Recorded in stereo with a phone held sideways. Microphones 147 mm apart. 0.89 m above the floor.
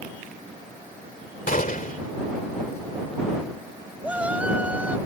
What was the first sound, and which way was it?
A gunshot, 65° left (ahead or behind).